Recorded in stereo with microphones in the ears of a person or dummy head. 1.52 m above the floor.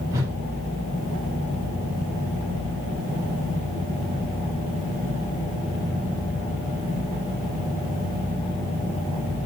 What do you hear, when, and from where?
0.1 s a whoosh: 15° right (ahead or behind), 1.5 m